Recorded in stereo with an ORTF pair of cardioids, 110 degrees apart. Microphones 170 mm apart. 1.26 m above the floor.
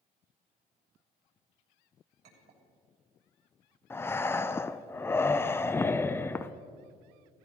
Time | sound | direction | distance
2.2 | a clink | 70° right | 3.5 m
3.9 | breathing | 15° left | 0.5 m